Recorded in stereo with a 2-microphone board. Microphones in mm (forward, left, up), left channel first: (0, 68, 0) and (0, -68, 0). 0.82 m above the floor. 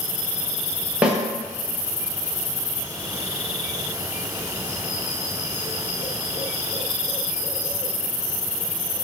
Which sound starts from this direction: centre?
A snare drum, at 1.0 s.